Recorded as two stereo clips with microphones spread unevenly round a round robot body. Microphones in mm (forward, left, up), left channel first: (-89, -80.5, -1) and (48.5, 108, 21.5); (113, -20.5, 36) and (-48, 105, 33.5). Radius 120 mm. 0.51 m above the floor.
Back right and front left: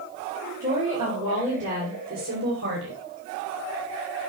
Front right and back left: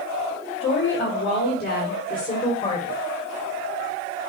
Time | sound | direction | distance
0.6 | a woman speaking | 20° right | 2 m